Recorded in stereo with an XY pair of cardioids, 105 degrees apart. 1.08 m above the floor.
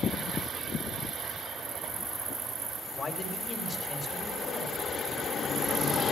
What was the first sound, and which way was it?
A man speaking, 40° left.